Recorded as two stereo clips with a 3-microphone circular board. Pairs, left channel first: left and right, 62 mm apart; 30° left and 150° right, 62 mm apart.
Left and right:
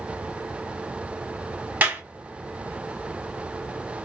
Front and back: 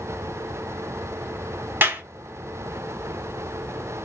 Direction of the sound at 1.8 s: 130° right.